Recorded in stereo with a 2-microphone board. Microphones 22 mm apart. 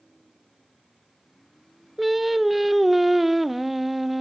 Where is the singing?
5° right (ahead or behind), 0.7 m.